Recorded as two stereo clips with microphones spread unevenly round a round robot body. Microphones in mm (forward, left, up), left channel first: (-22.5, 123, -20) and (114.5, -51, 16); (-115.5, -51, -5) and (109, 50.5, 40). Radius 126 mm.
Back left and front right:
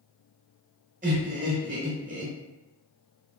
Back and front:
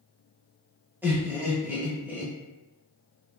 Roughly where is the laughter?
Right.